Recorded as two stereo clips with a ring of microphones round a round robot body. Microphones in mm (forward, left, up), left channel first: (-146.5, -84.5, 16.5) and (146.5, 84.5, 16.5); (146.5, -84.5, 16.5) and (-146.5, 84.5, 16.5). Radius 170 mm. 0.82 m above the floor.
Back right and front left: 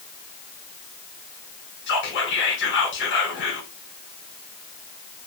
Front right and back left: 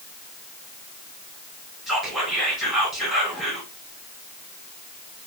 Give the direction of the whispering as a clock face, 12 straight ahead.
4 o'clock.